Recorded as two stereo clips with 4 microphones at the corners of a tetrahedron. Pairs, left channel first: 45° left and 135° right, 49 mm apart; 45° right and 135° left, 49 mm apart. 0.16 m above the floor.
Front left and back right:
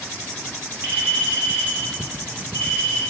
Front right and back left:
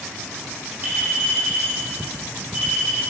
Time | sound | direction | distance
0.8 | a clink | 170° left | 2.0 m